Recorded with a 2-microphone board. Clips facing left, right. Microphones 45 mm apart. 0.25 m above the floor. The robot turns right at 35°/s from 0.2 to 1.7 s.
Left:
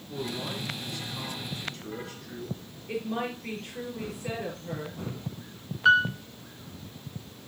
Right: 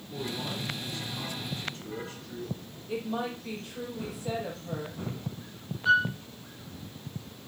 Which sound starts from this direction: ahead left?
A man speaking, at 0.1 s.